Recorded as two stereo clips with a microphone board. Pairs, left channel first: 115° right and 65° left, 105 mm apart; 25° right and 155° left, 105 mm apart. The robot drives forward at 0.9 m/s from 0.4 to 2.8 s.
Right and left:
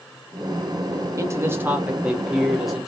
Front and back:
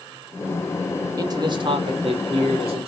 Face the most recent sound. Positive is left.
turn(degrees=155)